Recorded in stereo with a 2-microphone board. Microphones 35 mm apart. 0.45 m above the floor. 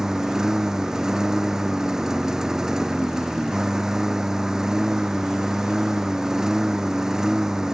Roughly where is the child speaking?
No child speaking in this recording.